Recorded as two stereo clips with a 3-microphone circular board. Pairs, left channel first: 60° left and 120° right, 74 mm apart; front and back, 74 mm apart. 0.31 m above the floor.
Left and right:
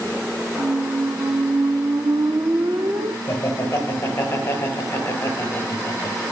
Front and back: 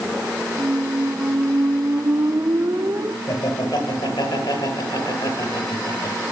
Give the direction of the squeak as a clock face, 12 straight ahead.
5 o'clock.